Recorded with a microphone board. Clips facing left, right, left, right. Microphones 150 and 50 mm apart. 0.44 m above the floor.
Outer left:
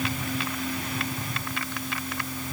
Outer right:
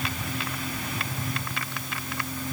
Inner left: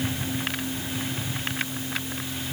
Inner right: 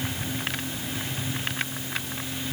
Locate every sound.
Only background noise.